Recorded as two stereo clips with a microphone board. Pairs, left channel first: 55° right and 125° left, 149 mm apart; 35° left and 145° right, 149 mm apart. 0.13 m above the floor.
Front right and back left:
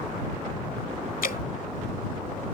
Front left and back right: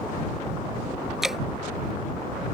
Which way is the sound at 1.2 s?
60° right.